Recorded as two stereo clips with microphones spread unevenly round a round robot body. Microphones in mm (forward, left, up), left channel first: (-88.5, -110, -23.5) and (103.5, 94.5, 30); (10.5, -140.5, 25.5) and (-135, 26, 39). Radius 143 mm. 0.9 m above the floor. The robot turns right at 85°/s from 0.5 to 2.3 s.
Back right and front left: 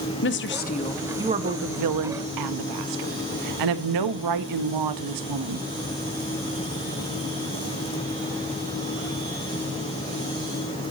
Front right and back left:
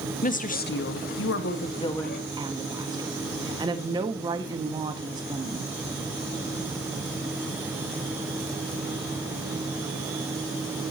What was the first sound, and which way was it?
A woman speaking, 95° right.